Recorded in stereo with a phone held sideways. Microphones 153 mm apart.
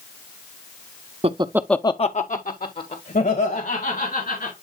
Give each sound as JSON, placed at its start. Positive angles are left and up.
{"t": 1.2, "sound": "laughter", "side_deg": -45, "distance_m": 0.7}